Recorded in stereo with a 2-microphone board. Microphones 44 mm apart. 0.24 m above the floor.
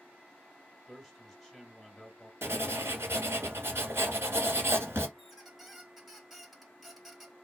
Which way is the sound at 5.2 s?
Centre (ahead or behind).